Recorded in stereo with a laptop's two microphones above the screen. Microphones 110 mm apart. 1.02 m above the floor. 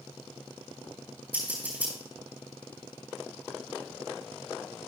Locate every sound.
1.3 s scissors: 20° right (ahead or behind), 4 m